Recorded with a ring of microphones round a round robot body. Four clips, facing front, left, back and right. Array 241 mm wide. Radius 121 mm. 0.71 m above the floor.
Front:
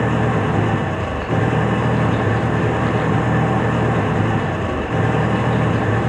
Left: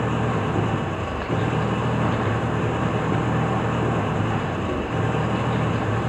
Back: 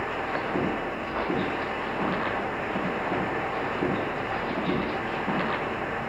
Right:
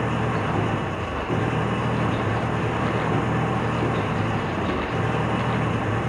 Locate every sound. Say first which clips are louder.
0.0 s an engine running: left 1 dB, front 11 dB; 5° left